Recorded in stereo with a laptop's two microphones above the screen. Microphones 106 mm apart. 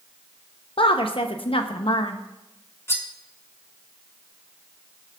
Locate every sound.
0.8 s a woman speaking: 55° left (ahead or behind), 0.7 m
2.9 s cutlery clinking: 25° left (ahead or behind), 1.3 m